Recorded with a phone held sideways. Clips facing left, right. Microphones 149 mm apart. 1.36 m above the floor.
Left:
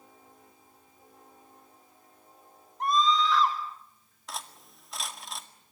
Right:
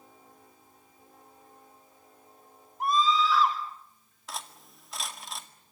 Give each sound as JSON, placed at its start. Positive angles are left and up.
{"t": 2.8, "sound": "a scream", "side_deg": -5, "distance_m": 6.0}
{"t": 4.3, "sound": "cutlery clinking", "side_deg": 0, "distance_m": 1.9}